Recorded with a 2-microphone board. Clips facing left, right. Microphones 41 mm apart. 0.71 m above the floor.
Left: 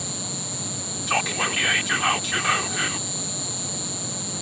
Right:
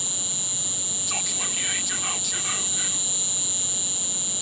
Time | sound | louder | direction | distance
0.0 | an insect | left 2 dB | 50° right (ahead or behind) | ?
1.1 | whispering | left 10 dB | 45° left (ahead or behind) | ?